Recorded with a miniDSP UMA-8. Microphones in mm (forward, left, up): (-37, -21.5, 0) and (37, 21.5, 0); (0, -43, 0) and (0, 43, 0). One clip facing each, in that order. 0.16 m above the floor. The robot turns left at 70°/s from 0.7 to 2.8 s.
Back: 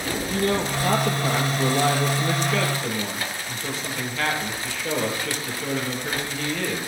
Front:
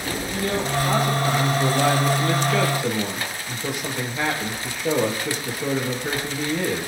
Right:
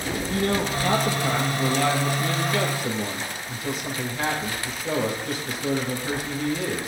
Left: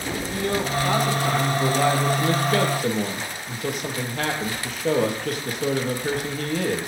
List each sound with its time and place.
0.3 s a man speaking: 115° right, 4.5 m; by 6.9 s 100° left, 4.5 m